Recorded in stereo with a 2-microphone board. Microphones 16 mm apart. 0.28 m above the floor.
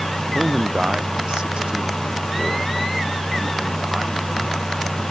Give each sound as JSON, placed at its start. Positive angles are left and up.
{"t": 0.3, "sound": "a man speaking", "side_deg": -60}